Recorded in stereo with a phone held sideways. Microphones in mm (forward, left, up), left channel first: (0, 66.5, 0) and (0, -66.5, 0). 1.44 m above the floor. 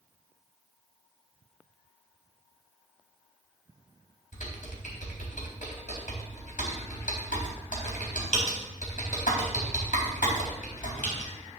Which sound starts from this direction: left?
Typing on a keyboard, at 4.3 s.